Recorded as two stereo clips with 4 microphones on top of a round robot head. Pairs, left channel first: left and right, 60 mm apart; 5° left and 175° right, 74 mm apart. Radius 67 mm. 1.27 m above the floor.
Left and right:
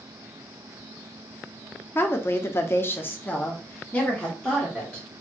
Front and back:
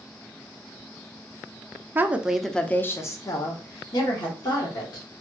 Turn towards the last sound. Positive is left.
turn(degrees=15)